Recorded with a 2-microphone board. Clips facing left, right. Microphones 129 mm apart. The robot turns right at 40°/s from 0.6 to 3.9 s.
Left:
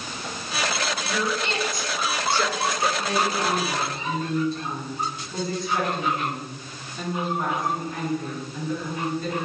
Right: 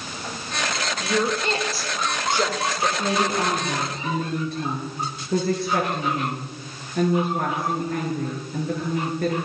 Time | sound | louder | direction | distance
1.0 | a woman speaking | right 7 dB | 50° right (ahead or behind) | 2 m
3.0 | a woman speaking | right 2 dB | 155° right | 7 m